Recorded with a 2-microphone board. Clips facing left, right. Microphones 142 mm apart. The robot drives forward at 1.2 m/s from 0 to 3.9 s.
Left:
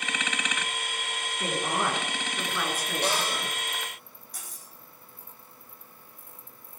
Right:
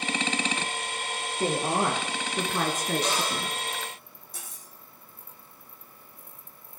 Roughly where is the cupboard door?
Left.